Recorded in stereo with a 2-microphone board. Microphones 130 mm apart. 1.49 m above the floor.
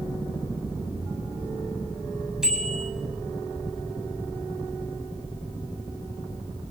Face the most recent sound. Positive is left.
turn(degrees=-5)  # may be behind; listen again after turning